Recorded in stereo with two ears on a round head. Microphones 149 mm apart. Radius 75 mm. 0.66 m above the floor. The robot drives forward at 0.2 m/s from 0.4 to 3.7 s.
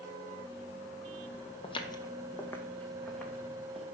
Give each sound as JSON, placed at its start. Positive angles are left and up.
{"t": 1.6, "sound": "footsteps", "side_deg": 35, "distance_m": 1.0}